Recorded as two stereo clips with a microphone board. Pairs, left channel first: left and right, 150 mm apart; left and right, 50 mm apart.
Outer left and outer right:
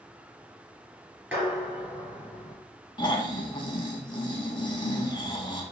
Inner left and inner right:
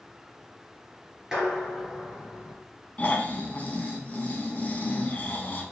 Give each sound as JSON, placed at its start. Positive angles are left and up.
{"t": 1.3, "sound": "dishes clattering", "side_deg": -5, "distance_m": 2.0}
{"t": 3.0, "sound": "snoring", "side_deg": 30, "distance_m": 0.7}